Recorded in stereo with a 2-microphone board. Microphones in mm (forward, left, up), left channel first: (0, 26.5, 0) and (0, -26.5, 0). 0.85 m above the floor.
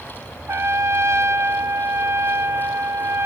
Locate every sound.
0.5 s a trumpet: 55° right (ahead or behind), 0.6 m